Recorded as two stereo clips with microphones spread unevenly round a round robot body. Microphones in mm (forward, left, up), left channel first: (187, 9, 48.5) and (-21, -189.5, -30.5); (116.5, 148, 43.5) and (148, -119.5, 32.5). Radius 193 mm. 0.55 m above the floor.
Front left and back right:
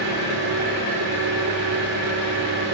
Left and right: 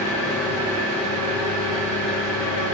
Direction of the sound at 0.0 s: Straight behind.